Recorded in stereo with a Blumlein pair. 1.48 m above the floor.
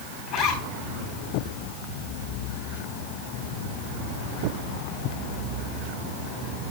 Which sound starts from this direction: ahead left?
A zipper, at 0.3 s.